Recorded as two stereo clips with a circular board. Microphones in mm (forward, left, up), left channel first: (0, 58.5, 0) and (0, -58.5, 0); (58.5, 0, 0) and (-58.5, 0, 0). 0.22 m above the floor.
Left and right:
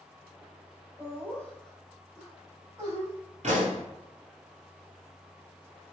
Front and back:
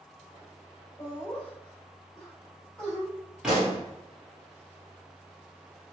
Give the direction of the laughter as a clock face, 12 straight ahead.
10 o'clock.